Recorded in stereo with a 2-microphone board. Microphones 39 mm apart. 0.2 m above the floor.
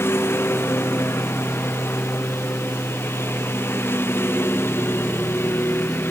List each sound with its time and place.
0.0 s a lawn mower: 75° left (ahead or behind); by 6.1 s 70° left (ahead or behind)